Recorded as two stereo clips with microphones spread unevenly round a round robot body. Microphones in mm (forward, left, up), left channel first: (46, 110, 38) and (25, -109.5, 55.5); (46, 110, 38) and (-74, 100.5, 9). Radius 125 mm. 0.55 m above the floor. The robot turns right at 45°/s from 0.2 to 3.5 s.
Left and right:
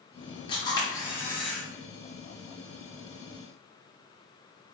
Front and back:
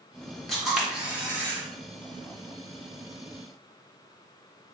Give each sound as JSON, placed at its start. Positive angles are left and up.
{"t": 0.5, "sound": "a camera shutter", "azimuth_deg": 115, "distance_m": 1.2}